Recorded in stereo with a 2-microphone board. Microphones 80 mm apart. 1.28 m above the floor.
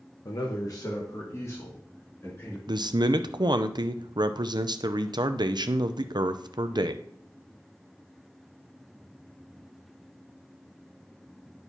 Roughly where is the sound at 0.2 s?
Left.